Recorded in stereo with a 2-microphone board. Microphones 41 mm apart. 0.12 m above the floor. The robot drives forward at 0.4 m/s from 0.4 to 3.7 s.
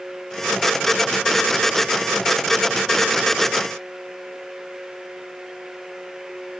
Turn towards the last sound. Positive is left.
No sound to turn to.